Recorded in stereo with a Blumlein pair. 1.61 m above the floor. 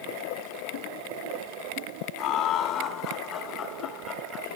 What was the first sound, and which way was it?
Laughter, 35° left.